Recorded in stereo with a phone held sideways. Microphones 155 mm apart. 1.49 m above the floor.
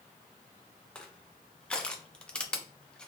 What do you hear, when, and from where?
0.9 s crushing: 5° left (ahead or behind), 0.5 m